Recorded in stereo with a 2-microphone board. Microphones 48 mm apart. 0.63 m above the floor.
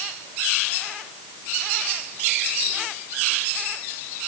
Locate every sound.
Only background noise.